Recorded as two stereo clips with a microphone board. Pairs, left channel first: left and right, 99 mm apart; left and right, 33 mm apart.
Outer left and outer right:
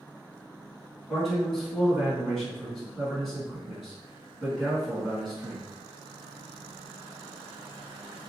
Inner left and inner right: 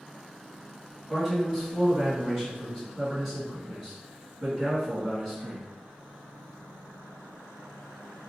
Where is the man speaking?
Centre (ahead or behind), 2.0 m.